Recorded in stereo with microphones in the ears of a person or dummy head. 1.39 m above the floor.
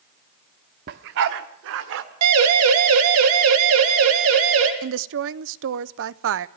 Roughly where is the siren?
Right.